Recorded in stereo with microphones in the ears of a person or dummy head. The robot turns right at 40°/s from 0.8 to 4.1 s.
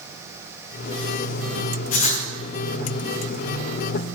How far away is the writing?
About 3.5 m.